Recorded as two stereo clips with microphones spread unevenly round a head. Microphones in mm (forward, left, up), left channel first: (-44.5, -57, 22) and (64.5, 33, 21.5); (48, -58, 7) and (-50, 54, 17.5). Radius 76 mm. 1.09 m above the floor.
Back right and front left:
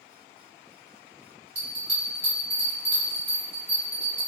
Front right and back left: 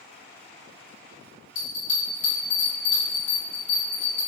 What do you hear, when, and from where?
1.6 s a bell: 10° right, 1.9 m